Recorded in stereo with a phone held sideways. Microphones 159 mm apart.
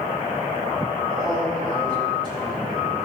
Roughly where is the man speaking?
Right.